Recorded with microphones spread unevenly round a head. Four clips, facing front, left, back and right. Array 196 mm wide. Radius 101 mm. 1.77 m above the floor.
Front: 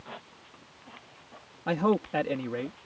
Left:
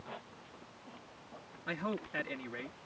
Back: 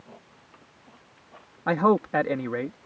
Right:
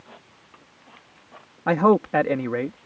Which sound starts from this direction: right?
A man speaking, at 1.7 s.